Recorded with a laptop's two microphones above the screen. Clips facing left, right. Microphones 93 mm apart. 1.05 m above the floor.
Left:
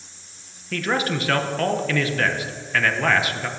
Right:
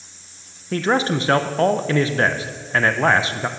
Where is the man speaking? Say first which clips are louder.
Right 4 dB; 30° right (ahead or behind), 0.7 m.